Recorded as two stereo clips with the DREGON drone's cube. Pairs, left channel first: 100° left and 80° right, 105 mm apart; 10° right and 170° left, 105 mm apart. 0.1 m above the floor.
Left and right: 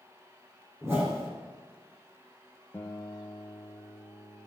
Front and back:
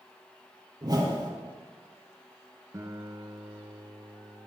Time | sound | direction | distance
0.8 | a whoosh | 140° right | 4 m
2.7 | a guitar | 150° left | 1.2 m